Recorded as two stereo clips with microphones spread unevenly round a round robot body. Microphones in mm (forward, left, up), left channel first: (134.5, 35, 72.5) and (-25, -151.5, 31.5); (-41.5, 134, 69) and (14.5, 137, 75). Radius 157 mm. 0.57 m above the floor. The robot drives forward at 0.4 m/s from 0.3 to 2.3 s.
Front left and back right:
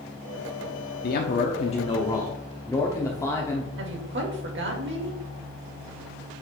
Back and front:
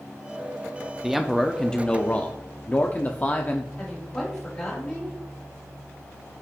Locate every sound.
1.0 s a man speaking: 90° left, 0.8 m; by 3.7 s 130° left, 0.9 m
3.8 s a woman speaking: 110° right, 2.5 m